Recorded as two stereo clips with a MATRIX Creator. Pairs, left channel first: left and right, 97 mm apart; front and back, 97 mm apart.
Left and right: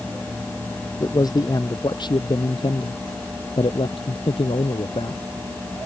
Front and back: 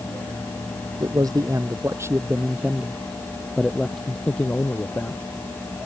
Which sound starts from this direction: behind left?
A man speaking, at 1.0 s.